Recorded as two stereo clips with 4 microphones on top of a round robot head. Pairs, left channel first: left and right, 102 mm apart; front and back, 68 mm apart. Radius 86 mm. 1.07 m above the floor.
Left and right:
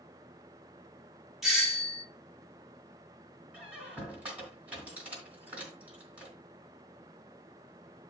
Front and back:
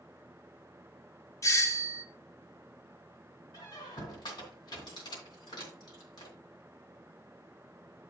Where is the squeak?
10° right, 2.5 m.